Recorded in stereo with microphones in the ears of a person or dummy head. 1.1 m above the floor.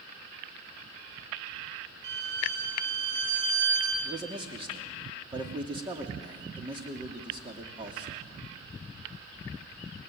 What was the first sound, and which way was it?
A violin, 80° right.